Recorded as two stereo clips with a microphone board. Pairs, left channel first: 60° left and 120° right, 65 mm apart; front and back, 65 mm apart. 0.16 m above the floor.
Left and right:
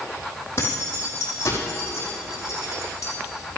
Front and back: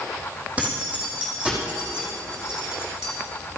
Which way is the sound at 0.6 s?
110° left.